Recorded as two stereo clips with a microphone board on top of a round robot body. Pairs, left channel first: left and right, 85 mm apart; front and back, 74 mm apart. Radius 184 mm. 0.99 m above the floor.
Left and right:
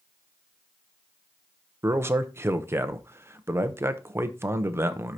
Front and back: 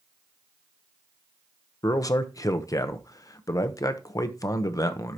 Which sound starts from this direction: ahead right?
A man speaking, at 1.8 s.